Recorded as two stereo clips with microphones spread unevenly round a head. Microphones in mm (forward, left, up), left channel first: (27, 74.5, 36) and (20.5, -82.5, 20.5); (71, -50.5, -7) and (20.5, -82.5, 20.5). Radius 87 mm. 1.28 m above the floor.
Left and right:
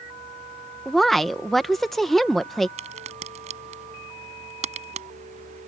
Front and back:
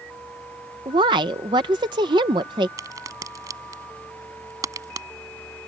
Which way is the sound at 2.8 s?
150° right.